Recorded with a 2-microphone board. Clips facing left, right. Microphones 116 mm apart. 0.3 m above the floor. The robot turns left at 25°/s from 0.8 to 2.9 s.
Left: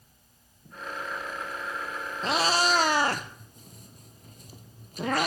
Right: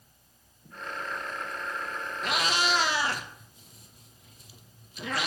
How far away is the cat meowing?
About 0.6 m.